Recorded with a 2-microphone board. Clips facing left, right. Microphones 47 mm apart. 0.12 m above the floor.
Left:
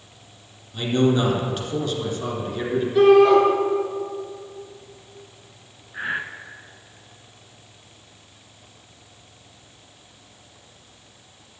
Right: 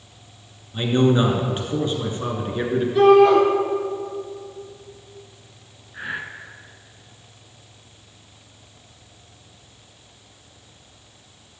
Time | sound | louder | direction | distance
0.7 | a man speaking | right 2 dB | 25° right (ahead or behind) | 1.8 m
3.0 | a shout | even | centre (ahead or behind) | 2 m
5.9 | breathing | left 3 dB | 20° left (ahead or behind) | 0.7 m